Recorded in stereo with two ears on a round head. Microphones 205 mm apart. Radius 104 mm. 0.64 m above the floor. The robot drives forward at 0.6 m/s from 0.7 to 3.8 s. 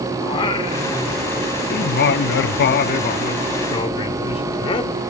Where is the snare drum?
No snare drum in this recording.